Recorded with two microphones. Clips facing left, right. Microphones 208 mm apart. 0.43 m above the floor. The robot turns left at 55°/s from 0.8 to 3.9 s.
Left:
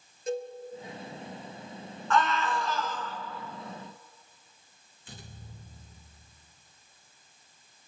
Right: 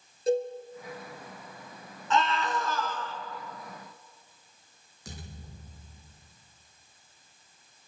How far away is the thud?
About 7.5 m.